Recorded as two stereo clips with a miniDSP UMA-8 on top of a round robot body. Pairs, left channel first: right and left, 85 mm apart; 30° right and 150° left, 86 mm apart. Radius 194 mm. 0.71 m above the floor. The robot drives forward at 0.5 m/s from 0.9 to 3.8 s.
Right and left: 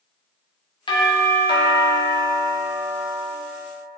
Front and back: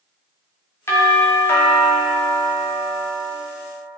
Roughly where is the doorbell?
Right.